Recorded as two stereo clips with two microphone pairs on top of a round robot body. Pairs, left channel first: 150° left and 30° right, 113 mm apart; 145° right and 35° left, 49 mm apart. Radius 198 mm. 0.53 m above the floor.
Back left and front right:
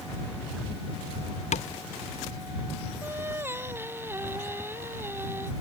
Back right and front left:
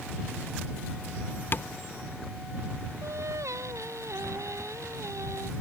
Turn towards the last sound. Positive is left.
turn(degrees=40)